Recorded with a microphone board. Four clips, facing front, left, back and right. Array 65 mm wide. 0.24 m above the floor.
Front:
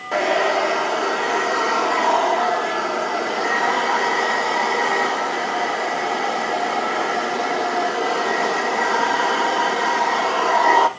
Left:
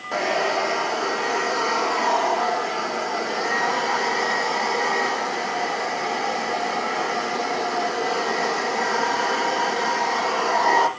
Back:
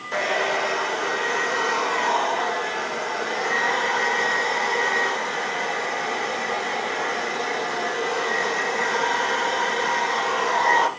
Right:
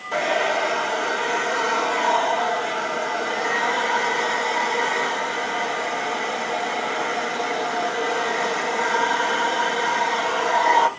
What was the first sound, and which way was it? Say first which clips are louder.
A hair dryer: right 1 dB, front 5 dB; 15° left.